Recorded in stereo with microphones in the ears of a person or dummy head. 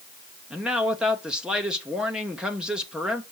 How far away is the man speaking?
About 0.7 m.